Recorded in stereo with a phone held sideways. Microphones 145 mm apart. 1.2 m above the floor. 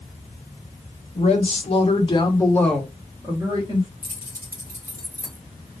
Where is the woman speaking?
50° left (ahead or behind), 0.9 m; by 3.9 s 35° right (ahead or behind), 0.8 m.